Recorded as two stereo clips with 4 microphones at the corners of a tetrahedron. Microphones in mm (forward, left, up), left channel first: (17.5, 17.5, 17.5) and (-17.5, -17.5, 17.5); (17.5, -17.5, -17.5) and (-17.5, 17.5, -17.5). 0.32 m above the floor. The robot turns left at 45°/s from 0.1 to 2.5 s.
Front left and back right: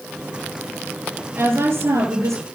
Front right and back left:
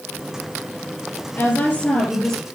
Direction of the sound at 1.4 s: 85° right.